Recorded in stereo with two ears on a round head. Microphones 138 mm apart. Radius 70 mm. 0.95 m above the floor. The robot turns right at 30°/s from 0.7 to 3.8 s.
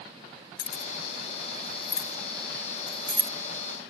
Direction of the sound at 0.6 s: 60° left (ahead or behind).